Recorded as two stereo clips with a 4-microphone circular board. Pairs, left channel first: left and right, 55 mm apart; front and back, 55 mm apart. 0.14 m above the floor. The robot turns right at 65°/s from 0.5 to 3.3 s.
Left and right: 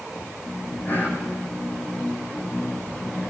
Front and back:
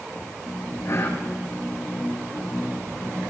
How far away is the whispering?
About 7 m.